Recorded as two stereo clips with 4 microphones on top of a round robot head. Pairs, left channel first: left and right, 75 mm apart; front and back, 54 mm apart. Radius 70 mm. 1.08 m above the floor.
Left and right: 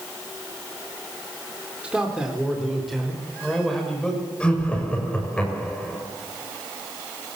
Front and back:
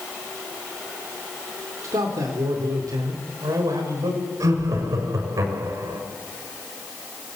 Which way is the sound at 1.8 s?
165° right.